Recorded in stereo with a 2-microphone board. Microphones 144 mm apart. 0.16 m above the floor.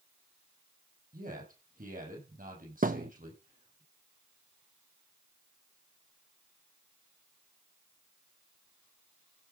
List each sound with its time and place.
1.1 s a man speaking: 75° right (ahead or behind), 5.5 m
2.8 s a thud: 75° right (ahead or behind), 0.7 m